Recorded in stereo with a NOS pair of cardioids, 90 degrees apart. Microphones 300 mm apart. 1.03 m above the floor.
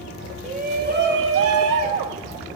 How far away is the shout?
About 1.6 m.